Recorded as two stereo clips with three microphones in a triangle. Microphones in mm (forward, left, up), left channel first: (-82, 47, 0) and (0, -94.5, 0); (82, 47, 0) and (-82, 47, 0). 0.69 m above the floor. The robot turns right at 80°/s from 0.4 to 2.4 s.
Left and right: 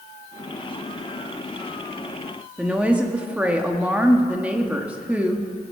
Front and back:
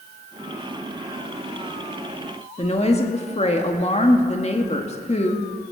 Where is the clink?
No clink in this recording.